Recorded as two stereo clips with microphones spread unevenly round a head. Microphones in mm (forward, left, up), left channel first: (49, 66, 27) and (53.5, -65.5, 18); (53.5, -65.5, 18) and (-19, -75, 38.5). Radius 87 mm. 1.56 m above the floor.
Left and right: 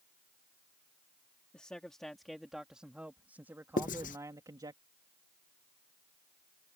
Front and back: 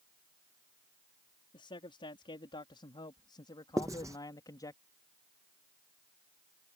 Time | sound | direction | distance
1.5 | a man speaking | 10° left | ?
3.8 | writing | 130° left | ?